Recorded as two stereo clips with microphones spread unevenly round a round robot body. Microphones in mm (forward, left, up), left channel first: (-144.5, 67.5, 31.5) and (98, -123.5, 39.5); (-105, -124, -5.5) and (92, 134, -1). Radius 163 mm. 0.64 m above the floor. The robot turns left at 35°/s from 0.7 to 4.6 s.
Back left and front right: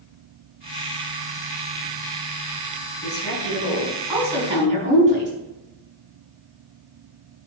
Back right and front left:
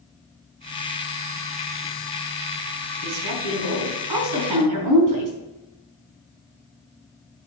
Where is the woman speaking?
85° left, 5 m; by 5.3 s 30° left, 5 m.